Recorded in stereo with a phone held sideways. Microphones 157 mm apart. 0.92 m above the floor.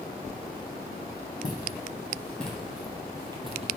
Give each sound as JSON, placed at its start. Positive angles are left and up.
{"t": 1.4, "sound": "footsteps", "side_deg": 25, "distance_m": 2.0}